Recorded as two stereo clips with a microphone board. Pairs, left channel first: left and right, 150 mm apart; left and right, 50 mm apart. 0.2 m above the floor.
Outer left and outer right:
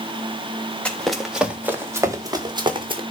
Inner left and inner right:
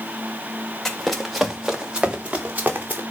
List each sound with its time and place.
0.8 s running footsteps: 5° left (ahead or behind), 3 m; by 3.0 s 35° right (ahead or behind), 4 m